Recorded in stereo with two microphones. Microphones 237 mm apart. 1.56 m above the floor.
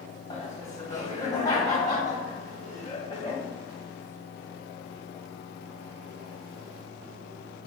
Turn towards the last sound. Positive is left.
turn(degrees=15)  # may be behind; listen again after turning